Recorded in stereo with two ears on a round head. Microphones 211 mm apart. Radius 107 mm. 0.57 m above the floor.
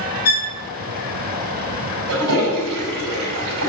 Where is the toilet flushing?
65° right (ahead or behind), 3 m.